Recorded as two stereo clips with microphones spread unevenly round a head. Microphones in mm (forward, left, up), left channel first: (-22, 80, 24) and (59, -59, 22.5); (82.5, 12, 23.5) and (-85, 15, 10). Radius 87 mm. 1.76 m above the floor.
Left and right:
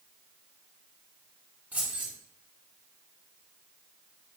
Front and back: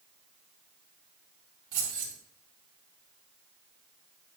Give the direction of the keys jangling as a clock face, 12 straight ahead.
5 o'clock.